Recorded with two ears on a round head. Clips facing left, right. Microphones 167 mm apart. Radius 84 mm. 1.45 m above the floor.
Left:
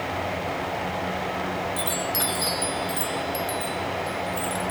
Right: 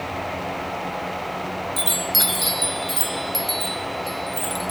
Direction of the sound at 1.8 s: 20° right (ahead or behind).